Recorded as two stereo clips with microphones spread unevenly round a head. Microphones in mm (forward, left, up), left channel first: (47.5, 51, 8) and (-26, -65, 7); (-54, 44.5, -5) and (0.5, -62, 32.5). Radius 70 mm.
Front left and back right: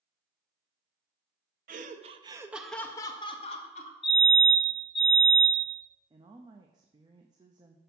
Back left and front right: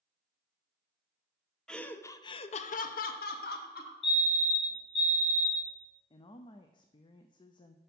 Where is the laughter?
150° right, 0.7 m; by 3.9 s 100° left, 1.1 m.